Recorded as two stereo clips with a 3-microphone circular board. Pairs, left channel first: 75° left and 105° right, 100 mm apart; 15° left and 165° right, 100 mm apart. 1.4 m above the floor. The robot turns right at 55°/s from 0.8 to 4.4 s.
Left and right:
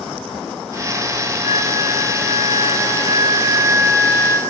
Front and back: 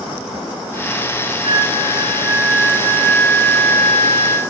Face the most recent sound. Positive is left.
turn(degrees=0)